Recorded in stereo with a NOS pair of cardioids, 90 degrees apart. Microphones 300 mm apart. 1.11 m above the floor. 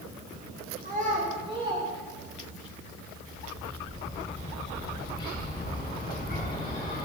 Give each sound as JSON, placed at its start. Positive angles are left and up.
{"t": 0.8, "sound": "a child speaking", "azimuth_deg": -30, "distance_m": 4.0}
{"t": 3.3, "sound": "a bird", "azimuth_deg": 25, "distance_m": 5.0}